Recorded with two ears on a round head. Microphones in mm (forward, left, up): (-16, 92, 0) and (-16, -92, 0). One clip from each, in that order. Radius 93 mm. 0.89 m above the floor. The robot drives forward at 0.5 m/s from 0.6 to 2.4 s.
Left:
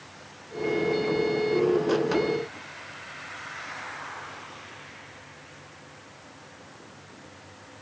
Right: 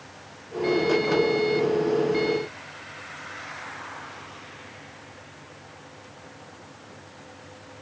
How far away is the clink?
I don't hear a clink.